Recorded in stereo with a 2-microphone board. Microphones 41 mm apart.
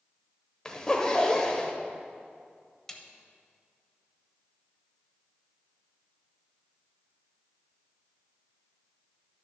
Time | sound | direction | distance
0.7 | a zipper | 20° left (ahead or behind) | 1.0 m
2.9 | a snare drum | 10° left (ahead or behind) | 0.9 m